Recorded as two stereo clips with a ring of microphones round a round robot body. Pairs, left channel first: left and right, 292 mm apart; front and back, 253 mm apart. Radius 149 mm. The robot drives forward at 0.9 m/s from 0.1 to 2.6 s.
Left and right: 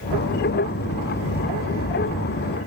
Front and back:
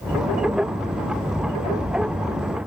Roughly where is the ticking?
I don't hear ticking.